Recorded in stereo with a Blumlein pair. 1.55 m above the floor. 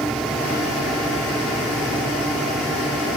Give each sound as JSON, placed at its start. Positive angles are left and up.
{"t": 0.0, "sound": "a fan", "azimuth_deg": -5}